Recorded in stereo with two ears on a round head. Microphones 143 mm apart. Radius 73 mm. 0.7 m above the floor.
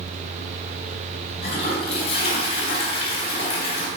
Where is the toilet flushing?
40° left (ahead or behind), 3.5 m.